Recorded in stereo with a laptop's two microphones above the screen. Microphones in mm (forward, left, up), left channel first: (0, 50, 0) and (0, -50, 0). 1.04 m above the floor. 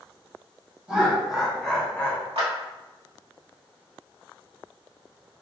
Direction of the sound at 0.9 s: 10° right (ahead or behind).